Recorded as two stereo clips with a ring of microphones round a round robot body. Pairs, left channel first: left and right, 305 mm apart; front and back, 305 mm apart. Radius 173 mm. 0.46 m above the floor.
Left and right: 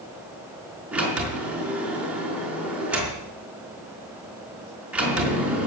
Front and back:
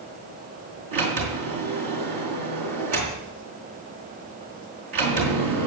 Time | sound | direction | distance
0.9 | a sliding door | 175° right | 4.5 m